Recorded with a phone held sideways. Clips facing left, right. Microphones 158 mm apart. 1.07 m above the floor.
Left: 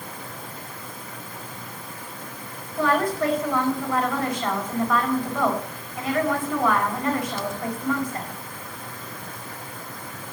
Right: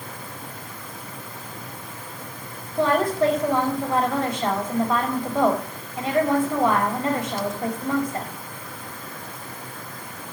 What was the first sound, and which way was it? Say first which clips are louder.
A woman speaking: right 2 dB; 25° right (ahead or behind).